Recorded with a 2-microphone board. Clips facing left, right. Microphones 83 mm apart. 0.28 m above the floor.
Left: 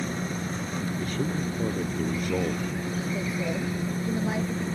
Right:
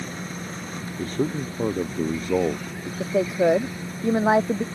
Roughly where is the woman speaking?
Right.